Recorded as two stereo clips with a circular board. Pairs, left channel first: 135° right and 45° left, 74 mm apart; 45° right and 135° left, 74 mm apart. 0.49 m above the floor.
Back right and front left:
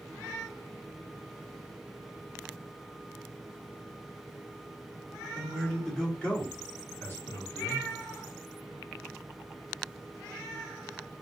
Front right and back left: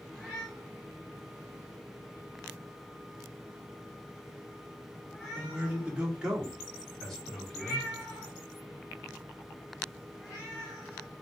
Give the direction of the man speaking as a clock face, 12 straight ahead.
8 o'clock.